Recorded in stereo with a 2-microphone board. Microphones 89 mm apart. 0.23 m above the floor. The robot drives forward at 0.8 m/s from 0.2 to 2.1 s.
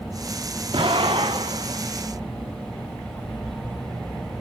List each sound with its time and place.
0.7 s an explosion: 80° right, 3.5 m; by 1.8 s 90° right, 3.5 m